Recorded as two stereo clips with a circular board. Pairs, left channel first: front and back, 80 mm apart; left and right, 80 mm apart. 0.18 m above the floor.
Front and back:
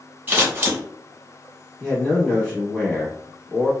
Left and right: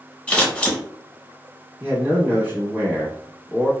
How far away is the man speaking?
About 1.0 m.